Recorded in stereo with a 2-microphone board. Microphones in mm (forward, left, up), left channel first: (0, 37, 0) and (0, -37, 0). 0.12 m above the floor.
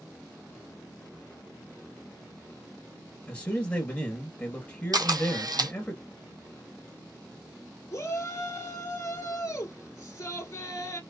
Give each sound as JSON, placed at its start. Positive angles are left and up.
{"t": 3.3, "sound": "a man speaking", "side_deg": 20, "distance_m": 1.4}
{"t": 4.9, "sound": "a camera shutter", "side_deg": -60, "distance_m": 0.6}
{"t": 7.9, "sound": "a shout", "side_deg": 45, "distance_m": 1.4}